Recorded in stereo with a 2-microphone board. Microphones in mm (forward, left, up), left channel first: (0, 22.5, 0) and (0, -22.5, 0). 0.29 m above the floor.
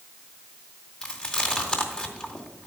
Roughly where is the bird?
No bird in this recording.